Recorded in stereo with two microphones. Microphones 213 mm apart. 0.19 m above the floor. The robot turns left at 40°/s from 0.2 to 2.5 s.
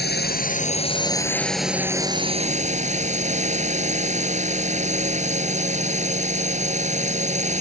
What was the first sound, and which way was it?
A drone, 55° left.